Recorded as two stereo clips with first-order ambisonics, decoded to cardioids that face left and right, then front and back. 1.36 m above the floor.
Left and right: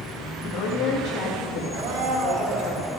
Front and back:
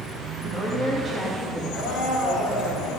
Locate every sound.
0.4 s a woman speaking: 65° left, 2.5 m
1.7 s a blender: 60° right, 2.5 m